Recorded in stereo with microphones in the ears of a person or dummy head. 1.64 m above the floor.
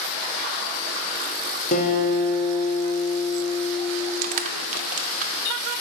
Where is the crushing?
45° right (ahead or behind), 0.6 m.